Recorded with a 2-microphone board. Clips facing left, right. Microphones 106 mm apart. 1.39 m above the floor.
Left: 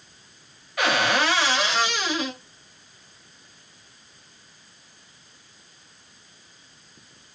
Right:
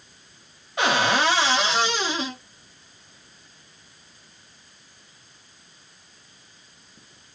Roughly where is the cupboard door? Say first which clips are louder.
Right 1 dB; right.